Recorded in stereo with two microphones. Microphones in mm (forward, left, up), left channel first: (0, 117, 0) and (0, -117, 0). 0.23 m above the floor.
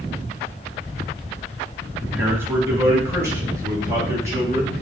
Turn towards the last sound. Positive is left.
turn(degrees=-15)  # may be behind; listen again after turning